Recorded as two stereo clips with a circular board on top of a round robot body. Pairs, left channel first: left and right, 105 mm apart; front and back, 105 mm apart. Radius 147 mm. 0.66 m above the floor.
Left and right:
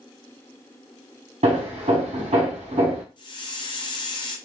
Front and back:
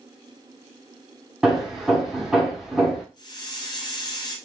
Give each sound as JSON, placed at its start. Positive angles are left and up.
{"t": 1.4, "sound": "hammering", "azimuth_deg": -95, "distance_m": 1.1}
{"t": 3.2, "sound": "a hiss", "azimuth_deg": 50, "distance_m": 0.7}